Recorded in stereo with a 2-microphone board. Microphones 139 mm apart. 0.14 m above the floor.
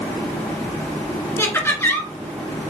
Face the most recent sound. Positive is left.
turn(degrees=20)  # may be behind; listen again after turning